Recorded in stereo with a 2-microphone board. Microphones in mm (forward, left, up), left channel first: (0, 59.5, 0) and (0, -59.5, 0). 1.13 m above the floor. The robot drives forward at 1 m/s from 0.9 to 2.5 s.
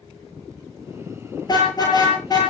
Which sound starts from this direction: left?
A car horn, at 1.4 s.